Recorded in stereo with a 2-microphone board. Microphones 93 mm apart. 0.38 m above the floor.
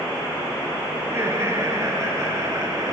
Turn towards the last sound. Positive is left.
turn(degrees=-40)  # may be behind; listen again after turning